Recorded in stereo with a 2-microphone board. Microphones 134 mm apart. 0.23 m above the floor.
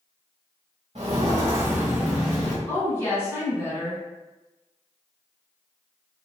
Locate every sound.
0.9 s footsteps: 50° right (ahead or behind), 1.1 m; by 2.6 s 15° left (ahead or behind), 1.4 m
2.7 s a woman speaking: 20° left (ahead or behind), 1.6 m